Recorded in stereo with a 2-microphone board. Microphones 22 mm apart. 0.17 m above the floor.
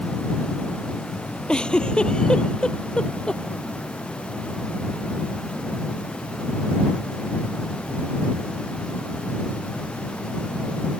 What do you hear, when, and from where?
1.5 s a giggle: 40° left (ahead or behind)